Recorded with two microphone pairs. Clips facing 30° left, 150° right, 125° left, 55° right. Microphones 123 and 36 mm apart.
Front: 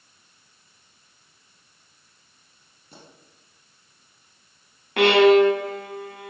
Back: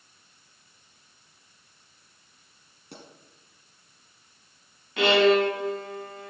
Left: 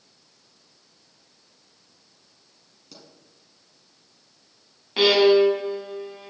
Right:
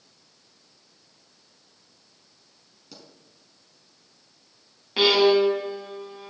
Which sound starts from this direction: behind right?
A pop, at 2.9 s.